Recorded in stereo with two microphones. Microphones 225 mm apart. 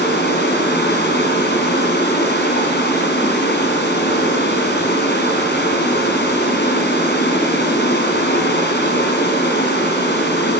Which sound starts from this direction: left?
Running water, at 0.0 s.